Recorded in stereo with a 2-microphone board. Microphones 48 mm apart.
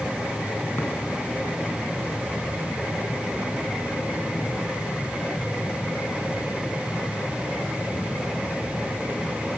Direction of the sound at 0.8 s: 50° left (ahead or behind).